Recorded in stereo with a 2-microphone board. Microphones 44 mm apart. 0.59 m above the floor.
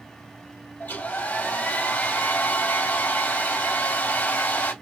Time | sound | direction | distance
0.8 | a hair dryer | 45° left (ahead or behind) | 1.8 m